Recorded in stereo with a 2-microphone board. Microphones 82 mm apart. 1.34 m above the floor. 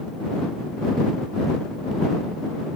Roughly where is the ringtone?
No ringtone in this recording.